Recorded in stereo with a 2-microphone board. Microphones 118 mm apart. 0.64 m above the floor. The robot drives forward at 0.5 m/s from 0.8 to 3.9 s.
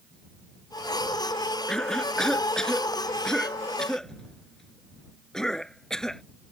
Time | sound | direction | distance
1.7 | a cough | 5° left (ahead or behind) | ?